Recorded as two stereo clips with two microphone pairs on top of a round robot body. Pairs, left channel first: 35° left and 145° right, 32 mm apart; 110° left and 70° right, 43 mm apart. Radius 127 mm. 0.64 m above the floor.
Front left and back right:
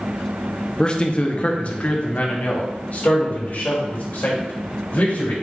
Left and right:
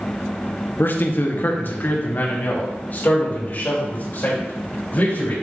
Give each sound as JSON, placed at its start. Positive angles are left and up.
{"t": 0.8, "sound": "a man speaking", "azimuth_deg": 90, "distance_m": 0.9}